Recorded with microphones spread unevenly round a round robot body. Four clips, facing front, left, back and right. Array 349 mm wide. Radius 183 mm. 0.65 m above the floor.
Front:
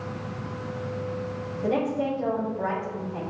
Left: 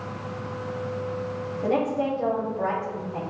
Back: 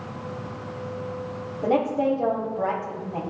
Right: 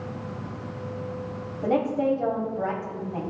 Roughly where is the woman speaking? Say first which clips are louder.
Right 1 dB, back 4 dB; behind.